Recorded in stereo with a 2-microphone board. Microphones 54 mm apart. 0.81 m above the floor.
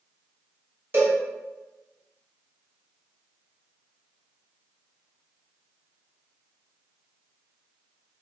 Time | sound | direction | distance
0.9 | a cowbell | 40° right (ahead or behind) | 1.3 m